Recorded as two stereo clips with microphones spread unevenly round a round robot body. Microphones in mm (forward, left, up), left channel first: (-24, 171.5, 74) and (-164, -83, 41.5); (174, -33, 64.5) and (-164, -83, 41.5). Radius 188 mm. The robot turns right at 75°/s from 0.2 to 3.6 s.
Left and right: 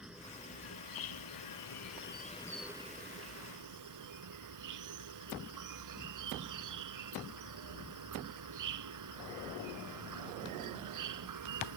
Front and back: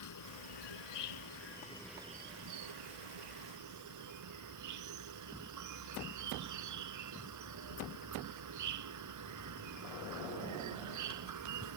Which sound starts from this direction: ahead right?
An insect, at 0.0 s.